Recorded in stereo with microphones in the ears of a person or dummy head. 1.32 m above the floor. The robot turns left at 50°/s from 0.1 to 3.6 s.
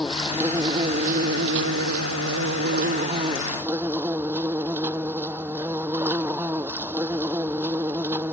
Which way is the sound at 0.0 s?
10° left.